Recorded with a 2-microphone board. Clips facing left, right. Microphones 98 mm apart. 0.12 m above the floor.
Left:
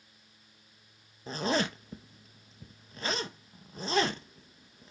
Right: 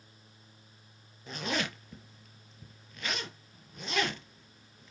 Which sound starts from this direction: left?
A zipper, at 1.3 s.